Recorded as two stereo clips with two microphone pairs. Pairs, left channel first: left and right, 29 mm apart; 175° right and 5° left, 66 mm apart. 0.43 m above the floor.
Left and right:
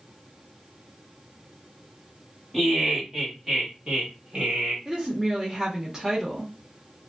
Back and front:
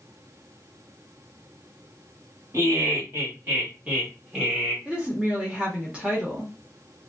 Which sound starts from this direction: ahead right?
A woman speaking, at 4.8 s.